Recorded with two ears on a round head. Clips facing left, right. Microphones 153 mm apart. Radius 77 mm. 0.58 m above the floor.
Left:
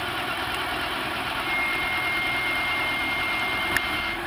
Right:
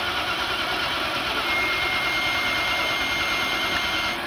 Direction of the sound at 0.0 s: 55° right (ahead or behind).